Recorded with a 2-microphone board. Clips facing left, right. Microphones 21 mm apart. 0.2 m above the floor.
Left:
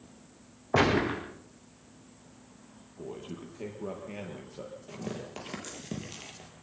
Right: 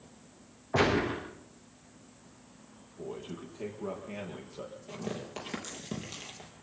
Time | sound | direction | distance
0.7 | a gunshot | 50° left (ahead or behind) | 7 m
3.0 | a man speaking | 10° left (ahead or behind) | 6 m
4.9 | tearing paper | 5° left (ahead or behind) | 5 m